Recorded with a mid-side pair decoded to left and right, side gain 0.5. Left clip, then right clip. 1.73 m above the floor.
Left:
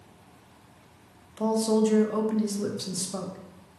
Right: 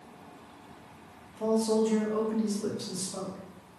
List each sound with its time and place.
1.4 s a man speaking: 50° left, 0.6 m